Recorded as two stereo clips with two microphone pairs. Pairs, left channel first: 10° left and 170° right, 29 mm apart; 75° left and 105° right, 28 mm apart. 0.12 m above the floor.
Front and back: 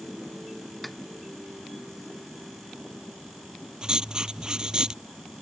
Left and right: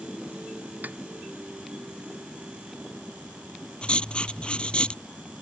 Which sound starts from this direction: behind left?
Writing, at 3.8 s.